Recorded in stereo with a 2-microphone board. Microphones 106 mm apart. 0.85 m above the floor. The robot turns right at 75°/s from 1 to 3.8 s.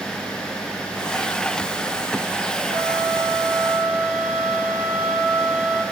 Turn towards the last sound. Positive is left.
turn(degrees=-20)